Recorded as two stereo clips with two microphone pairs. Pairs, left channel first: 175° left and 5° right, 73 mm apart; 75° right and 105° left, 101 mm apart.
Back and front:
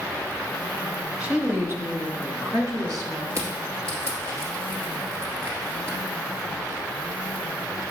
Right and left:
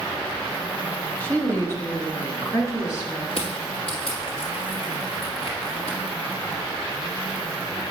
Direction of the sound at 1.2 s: 45° right.